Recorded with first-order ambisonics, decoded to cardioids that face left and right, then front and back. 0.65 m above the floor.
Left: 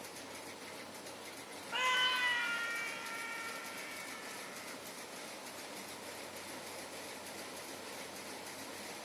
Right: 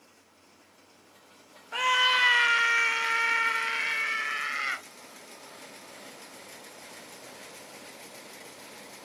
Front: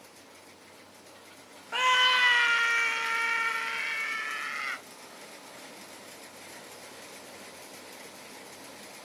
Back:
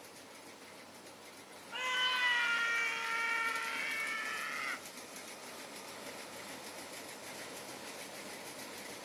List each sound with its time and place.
1.7 s a scream: 20° right; by 4.8 s 75° right